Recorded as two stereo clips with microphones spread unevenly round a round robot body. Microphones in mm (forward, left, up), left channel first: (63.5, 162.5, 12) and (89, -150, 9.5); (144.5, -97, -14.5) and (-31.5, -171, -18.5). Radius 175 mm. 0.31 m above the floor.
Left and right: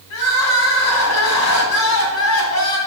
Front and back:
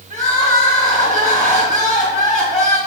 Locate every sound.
0.1 s crying: 110° left, 1.5 m